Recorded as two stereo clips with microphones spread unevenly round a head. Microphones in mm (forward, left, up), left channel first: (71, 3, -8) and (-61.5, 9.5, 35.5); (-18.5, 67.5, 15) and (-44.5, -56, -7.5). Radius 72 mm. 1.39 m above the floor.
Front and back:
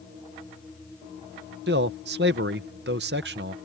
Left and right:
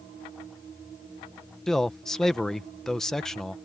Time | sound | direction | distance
1.7 | a man speaking | 165° left | ?